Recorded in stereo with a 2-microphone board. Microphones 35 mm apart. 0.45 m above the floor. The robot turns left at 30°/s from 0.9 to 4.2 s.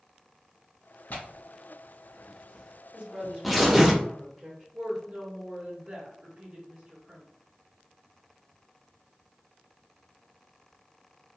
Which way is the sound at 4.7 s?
40° right (ahead or behind).